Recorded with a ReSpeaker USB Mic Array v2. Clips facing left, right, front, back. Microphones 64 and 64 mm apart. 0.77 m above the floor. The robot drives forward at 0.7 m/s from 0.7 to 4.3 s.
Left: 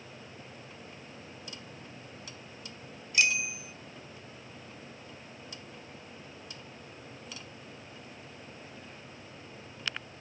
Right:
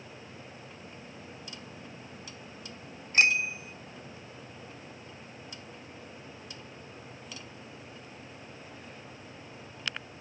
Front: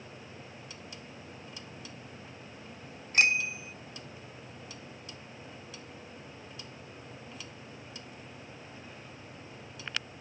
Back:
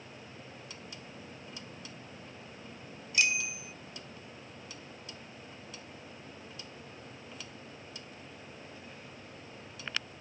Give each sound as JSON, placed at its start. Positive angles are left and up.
{"t": 3.1, "sound": "a bicycle bell", "azimuth_deg": -45}